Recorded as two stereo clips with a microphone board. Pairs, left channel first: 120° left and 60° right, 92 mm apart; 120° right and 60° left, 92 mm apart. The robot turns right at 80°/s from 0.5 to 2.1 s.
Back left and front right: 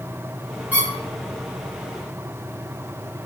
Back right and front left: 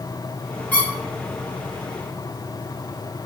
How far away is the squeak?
About 1.4 m.